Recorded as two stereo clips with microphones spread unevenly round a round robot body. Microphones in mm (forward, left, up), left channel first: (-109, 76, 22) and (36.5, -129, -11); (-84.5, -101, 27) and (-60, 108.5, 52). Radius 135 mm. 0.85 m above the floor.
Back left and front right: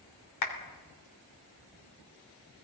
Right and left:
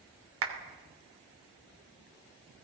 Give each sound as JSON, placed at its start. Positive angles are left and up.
{"t": 0.4, "sound": "a clap", "azimuth_deg": 95, "distance_m": 3.0}